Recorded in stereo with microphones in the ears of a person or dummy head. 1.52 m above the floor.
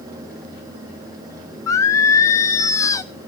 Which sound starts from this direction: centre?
Singing, at 1.7 s.